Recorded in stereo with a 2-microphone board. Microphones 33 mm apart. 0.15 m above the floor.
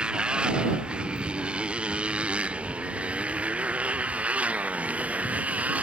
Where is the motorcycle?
30° right (ahead or behind); by 5.8 s 50° right (ahead or behind).